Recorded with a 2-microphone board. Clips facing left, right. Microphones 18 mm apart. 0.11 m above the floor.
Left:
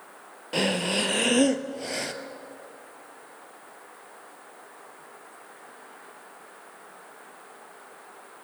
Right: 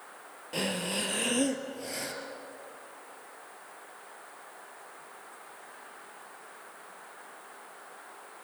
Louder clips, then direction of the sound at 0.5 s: Left 7 dB; 25° left (ahead or behind).